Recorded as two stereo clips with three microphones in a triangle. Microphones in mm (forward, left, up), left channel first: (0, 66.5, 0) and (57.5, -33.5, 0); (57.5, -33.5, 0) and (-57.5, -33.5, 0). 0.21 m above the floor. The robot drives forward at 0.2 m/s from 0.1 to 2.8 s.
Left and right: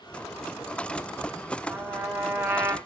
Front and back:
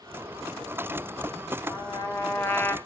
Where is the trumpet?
20° right, 0.6 m; by 2.8 s 45° right, 0.5 m.